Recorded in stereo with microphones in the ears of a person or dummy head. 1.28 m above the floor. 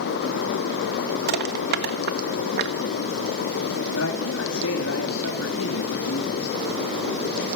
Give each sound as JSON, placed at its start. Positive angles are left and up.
{"t": 1.3, "sound": "crushing", "side_deg": -55, "distance_m": 1.4}
{"t": 4.0, "sound": "a man speaking", "side_deg": 85, "distance_m": 2.5}